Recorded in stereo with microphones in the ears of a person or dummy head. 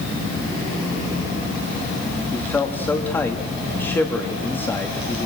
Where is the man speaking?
15° left (ahead or behind), 2.5 m.